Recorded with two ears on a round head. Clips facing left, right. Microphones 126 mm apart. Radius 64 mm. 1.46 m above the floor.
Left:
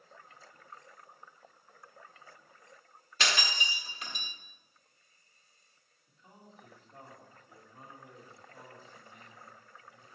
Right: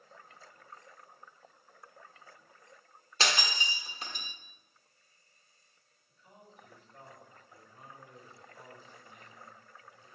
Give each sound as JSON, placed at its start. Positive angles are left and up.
{"t": 3.2, "sound": "breaking glass", "side_deg": -30, "distance_m": 1.2}
{"t": 6.1, "sound": "a man speaking", "side_deg": 30, "distance_m": 3.0}